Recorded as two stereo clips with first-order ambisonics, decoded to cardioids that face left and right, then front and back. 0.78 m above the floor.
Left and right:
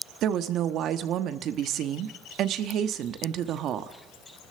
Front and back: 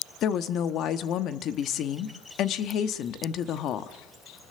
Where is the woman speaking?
45° right, 1.1 m.